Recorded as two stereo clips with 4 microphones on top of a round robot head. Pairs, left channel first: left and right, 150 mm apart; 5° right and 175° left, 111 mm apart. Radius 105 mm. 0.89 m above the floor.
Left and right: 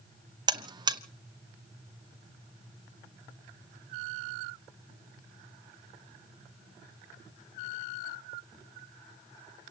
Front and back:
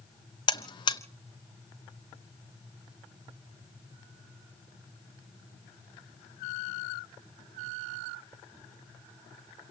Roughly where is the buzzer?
Ahead right.